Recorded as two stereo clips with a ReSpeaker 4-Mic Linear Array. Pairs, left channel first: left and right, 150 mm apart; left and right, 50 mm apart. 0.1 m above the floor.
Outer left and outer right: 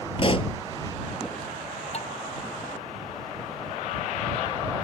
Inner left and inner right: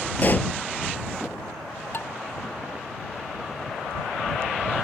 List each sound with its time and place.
0.2 s a pop: 40° left (ahead or behind)
1.9 s dishes clattering: 50° left (ahead or behind)